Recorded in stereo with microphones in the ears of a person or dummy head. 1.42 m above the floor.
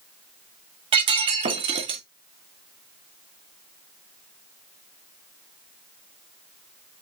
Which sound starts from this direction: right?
Breaking glass, at 0.9 s.